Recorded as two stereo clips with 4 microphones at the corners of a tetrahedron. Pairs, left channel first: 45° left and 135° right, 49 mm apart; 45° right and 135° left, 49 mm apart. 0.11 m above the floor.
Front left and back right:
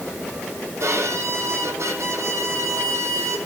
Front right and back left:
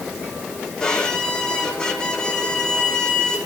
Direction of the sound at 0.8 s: 120° right.